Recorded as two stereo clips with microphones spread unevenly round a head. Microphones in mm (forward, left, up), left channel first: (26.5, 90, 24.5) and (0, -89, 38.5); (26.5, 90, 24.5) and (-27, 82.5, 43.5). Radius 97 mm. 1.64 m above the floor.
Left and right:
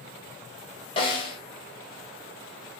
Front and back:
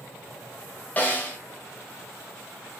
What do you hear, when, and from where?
1.0 s a snare drum: 80° left, 1.4 m